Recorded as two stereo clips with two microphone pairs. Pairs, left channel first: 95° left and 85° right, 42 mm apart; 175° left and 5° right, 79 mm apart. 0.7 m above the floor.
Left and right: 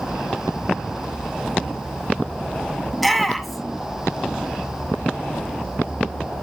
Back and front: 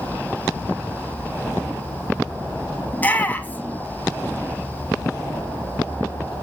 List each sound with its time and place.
2.9 s a shout: 175° right, 1.1 m